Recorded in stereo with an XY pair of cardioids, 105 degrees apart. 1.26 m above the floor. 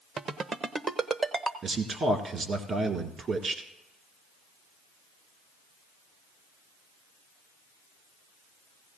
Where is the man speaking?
45° right, 1.6 m.